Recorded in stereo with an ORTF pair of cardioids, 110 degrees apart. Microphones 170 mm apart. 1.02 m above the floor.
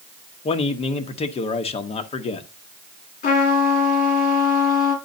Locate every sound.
0.5 s a man speaking: 35° left, 1.1 m
3.2 s a trumpet: 55° left, 3.5 m